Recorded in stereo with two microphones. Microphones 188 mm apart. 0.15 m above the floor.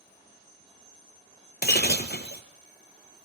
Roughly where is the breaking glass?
Left.